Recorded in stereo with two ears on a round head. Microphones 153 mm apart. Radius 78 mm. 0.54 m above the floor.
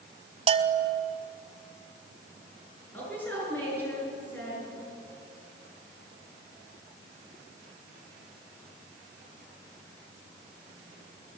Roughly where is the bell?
Right.